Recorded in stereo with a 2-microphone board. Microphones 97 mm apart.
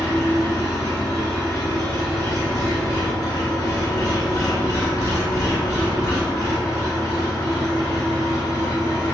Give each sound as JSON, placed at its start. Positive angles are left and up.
{"t": 0.0, "sound": "an engine running", "side_deg": 40, "distance_m": 1.0}